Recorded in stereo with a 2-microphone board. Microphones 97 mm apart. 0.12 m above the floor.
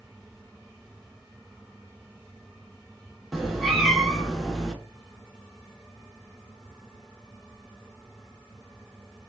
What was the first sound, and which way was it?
A cat meowing, centre (ahead or behind).